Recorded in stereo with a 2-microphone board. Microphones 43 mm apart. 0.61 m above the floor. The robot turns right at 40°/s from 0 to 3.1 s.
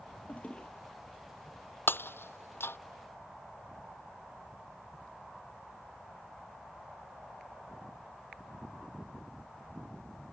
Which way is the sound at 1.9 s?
60° left (ahead or behind).